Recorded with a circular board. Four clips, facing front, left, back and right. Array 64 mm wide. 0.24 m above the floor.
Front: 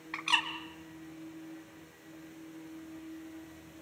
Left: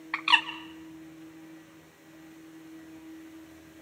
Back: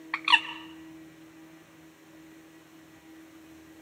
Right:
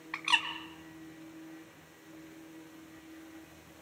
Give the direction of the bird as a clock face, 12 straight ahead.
7 o'clock.